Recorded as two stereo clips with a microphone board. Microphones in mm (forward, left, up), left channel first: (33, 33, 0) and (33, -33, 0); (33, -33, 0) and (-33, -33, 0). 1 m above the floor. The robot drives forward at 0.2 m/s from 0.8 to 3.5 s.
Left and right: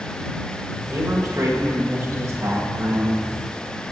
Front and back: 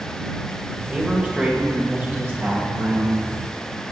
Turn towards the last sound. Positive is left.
turn(degrees=-130)